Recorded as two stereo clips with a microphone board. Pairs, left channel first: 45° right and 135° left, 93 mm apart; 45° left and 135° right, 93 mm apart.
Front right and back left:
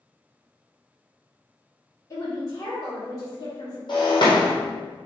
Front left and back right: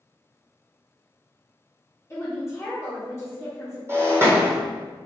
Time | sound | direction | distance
2.1 | a woman speaking | 5° right | 1.3 m
3.9 | breaking glass | 75° right | 1.6 m